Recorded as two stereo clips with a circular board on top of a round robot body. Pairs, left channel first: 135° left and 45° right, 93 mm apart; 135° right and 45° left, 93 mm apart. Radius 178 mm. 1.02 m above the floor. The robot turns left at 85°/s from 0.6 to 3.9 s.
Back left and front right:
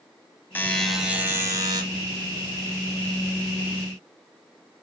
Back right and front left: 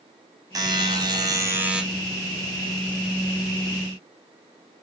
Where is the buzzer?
70° left, 0.8 m; by 1.8 s 30° right, 0.8 m.